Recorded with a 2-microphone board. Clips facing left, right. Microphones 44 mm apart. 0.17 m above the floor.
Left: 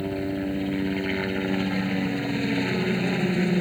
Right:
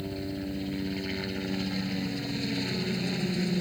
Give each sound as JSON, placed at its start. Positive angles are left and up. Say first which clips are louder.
{"t": 0.0, "sound": "a helicopter", "louder": "left 7 dB", "side_deg": 35}